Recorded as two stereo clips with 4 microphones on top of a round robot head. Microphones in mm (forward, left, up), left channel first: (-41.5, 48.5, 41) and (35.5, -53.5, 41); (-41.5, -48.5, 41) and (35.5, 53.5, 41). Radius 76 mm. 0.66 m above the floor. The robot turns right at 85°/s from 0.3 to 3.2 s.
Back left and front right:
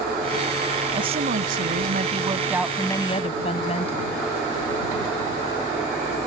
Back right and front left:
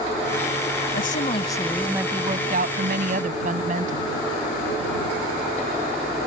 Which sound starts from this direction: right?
A woman speaking, at 0.9 s.